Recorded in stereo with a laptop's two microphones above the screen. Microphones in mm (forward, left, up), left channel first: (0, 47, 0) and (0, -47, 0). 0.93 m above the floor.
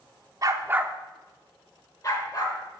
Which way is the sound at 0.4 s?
40° right (ahead or behind).